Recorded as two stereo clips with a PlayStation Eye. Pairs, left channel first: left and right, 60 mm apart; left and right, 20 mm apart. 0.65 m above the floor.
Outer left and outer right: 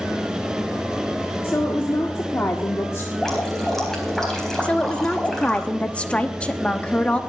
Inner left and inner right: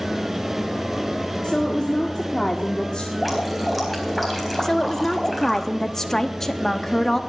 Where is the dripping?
10° left (ahead or behind), 4 m.